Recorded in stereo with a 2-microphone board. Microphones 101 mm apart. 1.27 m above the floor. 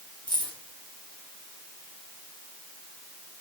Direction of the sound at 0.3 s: 50° left (ahead or behind).